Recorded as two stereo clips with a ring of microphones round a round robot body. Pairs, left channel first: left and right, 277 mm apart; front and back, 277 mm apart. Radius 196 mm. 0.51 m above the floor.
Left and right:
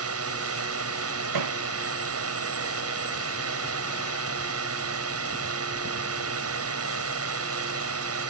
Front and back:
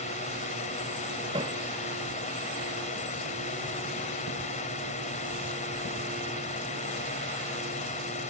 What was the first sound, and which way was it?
A drone, 70° right.